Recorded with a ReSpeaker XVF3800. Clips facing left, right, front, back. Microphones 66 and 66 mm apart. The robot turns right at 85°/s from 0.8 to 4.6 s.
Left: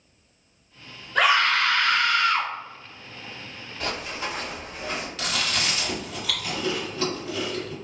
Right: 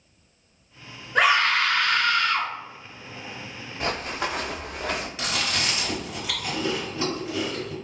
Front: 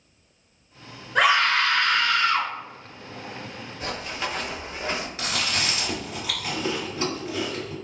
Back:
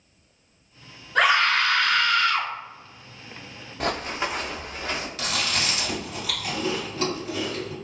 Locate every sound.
1.1 s a scream: 65° right, 1.5 m; by 2.5 s 50° left, 1.5 m
3.8 s running footsteps: 160° right, 0.7 m; by 5.1 s 65° right, 1.2 m
5.2 s chewing: 35° right, 1.9 m